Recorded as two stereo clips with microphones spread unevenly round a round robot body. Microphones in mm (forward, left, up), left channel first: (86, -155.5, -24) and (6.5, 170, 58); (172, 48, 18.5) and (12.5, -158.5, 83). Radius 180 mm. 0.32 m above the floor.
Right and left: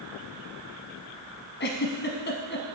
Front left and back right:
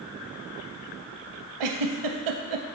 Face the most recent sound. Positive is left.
turn(degrees=-140)